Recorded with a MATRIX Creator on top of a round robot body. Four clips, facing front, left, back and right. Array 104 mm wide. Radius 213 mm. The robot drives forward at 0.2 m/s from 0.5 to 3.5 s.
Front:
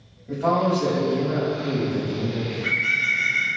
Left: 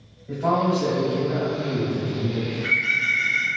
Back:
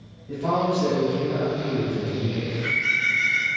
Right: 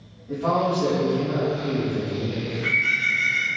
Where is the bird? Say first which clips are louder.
Even, even; 135° right, 1.7 m; by 3.5 s 140° right, 1.8 m.